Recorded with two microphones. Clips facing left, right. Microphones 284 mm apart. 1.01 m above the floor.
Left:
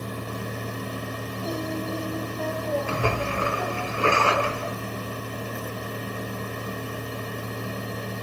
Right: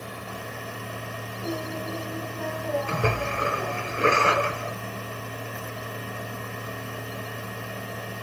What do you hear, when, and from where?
1.4 s singing: 65° right (ahead or behind), 5 m
2.9 s a splash: 25° right (ahead or behind), 1.7 m